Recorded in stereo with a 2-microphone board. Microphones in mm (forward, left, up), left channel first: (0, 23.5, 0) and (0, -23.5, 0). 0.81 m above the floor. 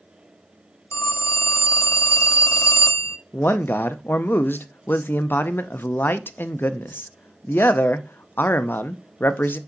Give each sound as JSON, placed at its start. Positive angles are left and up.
{"t": 0.9, "sound": "a phone ringing", "side_deg": 85, "distance_m": 0.6}
{"t": 3.3, "sound": "a man speaking", "side_deg": 50, "distance_m": 0.6}